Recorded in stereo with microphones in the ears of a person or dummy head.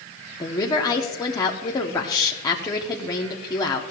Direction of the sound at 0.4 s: 25° left (ahead or behind).